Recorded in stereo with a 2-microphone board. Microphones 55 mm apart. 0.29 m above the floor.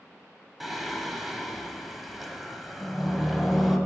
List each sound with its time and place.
0.6 s singing: centre (ahead or behind), 1.1 m